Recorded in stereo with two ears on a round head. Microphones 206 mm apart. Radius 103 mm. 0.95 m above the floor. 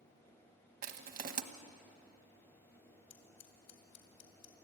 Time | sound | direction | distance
0.8 | crushing | 40° right (ahead or behind) | 1.1 m
3.1 | scissors | 80° left | 2.5 m